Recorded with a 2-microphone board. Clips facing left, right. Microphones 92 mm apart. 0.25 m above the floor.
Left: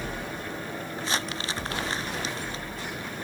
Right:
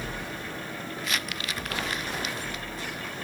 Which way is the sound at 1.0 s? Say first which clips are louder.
Left 3 dB; 30° left (ahead or behind).